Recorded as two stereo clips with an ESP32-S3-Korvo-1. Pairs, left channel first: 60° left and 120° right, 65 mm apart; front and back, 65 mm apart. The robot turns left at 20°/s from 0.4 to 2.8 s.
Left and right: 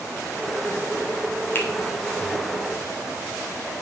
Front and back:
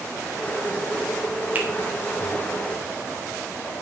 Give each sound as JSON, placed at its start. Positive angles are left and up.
{"t": 1.6, "sound": "a finger snap", "azimuth_deg": 115, "distance_m": 2.5}